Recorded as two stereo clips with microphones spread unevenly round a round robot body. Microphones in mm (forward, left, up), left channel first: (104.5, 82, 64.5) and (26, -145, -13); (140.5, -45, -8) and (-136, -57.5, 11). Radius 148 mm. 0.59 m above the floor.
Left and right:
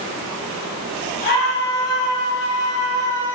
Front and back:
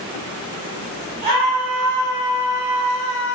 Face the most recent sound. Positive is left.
turn(degrees=50)